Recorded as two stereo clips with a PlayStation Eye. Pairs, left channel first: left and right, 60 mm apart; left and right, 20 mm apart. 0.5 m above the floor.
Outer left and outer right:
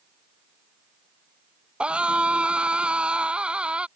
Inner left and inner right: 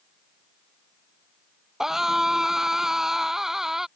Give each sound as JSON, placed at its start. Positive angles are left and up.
{"t": 1.8, "sound": "a scream", "side_deg": -20}